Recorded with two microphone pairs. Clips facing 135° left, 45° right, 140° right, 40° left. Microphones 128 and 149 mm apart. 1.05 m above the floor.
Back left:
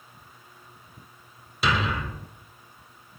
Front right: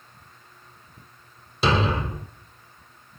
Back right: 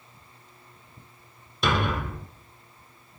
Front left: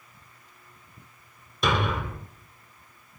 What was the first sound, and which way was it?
A thud, 50° right.